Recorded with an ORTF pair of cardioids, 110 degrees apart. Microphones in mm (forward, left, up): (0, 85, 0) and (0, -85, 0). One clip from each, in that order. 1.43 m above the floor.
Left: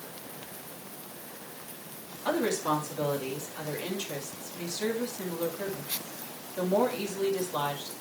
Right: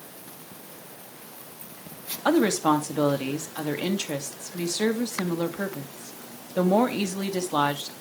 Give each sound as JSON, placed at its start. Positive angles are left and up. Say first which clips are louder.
{"t": 2.2, "sound": "a woman speaking", "louder": "right 6 dB", "azimuth_deg": -65, "distance_m": 2.5}